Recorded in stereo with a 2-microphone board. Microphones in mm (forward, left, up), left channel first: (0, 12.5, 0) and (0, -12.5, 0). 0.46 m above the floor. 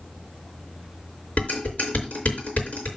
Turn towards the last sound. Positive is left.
turn(degrees=85)